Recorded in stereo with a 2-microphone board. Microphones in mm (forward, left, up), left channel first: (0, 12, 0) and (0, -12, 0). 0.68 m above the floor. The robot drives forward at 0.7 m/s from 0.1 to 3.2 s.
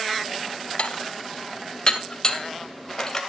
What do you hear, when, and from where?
0.8 s dishes clattering: 50° left (ahead or behind), 1.2 m; by 3.2 s 20° left (ahead or behind), 2.5 m